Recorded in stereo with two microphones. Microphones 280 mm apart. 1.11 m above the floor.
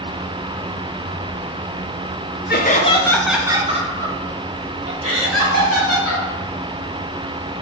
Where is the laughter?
40° left (ahead or behind), 0.8 m; by 6.2 s 60° right (ahead or behind), 2 m.